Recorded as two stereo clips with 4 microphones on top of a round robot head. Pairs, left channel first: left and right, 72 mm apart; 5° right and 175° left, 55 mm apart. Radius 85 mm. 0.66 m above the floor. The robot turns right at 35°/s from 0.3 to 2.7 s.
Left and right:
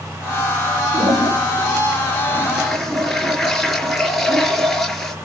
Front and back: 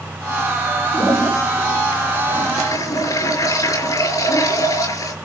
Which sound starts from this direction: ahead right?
A toilet flushing, at 0.9 s.